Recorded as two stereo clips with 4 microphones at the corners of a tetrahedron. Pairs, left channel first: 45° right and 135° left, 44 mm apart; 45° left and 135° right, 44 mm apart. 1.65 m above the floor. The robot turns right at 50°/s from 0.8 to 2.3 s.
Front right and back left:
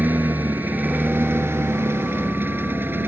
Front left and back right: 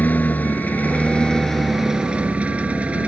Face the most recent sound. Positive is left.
turn(degrees=170)